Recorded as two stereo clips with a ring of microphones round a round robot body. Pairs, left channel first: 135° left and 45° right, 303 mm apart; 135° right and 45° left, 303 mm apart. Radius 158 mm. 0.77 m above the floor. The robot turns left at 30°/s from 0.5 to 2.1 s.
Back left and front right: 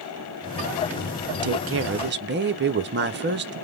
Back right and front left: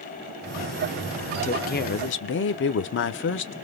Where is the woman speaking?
70° right, 0.5 m; by 3.5 s 90° right, 0.5 m.